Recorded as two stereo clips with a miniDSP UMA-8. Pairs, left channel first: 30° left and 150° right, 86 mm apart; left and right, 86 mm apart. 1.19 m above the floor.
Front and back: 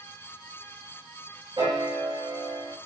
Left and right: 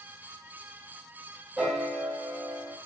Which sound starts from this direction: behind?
A piano, at 1.6 s.